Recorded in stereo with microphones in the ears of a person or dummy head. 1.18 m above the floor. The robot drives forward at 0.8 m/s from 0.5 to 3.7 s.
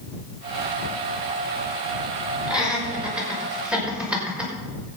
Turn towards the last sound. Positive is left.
turn(degrees=-10)  # may be behind; listen again after turning